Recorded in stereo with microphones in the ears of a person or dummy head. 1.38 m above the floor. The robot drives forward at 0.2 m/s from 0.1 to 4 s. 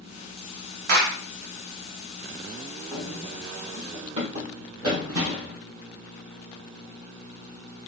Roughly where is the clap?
Right.